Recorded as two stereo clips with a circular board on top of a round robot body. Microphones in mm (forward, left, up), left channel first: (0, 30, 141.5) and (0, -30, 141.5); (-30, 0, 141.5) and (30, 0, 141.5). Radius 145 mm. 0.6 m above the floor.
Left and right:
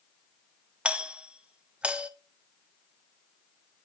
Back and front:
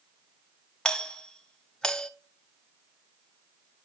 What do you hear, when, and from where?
0.8 s a doorbell: 125° right, 1.0 m